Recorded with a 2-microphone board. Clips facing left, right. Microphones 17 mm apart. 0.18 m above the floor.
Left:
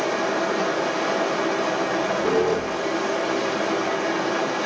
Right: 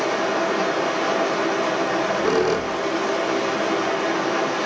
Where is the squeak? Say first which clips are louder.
Right 1 dB; 45° right (ahead or behind), 1.1 m.